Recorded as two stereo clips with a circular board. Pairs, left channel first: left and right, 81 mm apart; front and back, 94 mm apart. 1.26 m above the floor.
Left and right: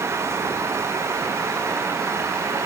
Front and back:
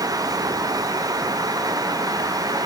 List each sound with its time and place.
Only background noise.